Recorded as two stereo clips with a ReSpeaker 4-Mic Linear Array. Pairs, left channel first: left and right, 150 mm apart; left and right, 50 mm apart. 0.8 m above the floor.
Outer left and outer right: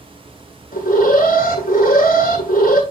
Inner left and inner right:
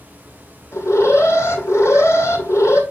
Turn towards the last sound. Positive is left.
turn(degrees=75)  # may be behind; listen again after turning